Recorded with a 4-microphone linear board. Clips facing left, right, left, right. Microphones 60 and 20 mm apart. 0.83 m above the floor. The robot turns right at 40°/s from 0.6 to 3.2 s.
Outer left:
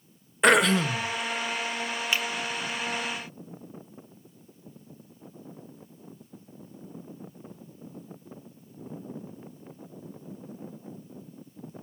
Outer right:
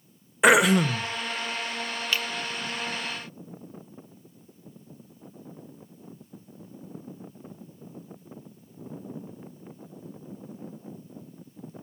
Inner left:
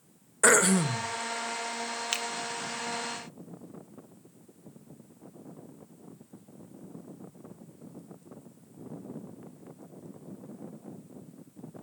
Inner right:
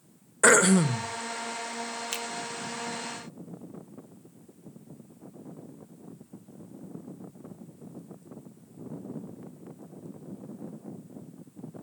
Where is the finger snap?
20° left (ahead or behind), 0.8 m; by 2.2 s 15° left (ahead or behind), 0.8 m.